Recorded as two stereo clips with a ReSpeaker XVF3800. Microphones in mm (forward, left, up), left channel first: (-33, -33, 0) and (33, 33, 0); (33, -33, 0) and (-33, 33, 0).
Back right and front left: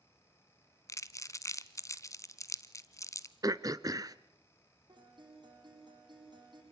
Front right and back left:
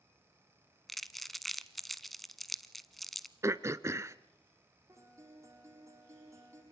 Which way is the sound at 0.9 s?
130° right.